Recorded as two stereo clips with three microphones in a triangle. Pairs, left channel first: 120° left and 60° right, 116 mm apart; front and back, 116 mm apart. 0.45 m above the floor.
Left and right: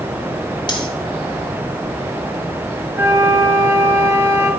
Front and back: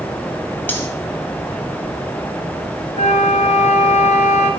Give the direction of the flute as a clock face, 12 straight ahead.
12 o'clock.